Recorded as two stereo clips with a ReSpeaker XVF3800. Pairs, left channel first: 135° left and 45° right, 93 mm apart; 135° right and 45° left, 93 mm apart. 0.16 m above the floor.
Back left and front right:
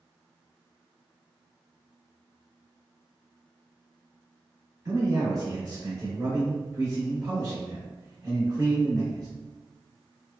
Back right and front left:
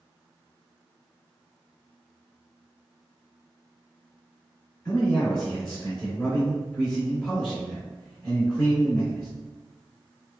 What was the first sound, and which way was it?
A man speaking, 55° right.